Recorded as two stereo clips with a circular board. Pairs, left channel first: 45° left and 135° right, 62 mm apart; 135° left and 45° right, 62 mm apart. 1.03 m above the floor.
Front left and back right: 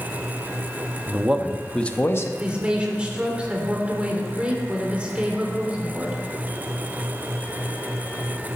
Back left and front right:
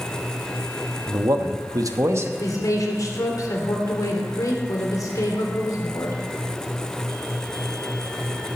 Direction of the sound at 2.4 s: 155° left.